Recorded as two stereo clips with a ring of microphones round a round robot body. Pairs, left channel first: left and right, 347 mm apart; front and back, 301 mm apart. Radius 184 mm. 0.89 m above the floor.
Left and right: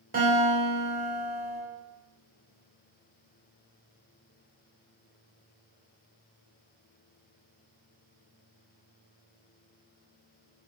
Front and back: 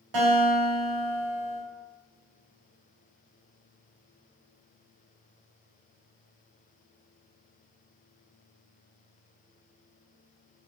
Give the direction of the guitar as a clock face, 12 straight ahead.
5 o'clock.